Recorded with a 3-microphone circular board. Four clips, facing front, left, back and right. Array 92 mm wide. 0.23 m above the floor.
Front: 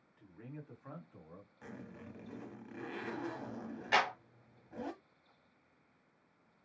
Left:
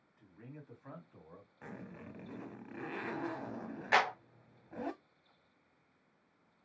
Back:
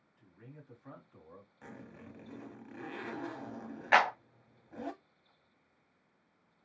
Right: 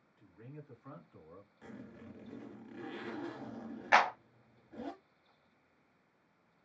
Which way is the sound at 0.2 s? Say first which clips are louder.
Right 1 dB, front 5 dB; 20° left.